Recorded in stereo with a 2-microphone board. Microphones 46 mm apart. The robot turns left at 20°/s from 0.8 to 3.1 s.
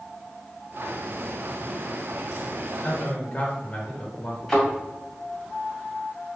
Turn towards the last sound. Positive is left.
turn(degrees=10)  # may be behind; listen again after turning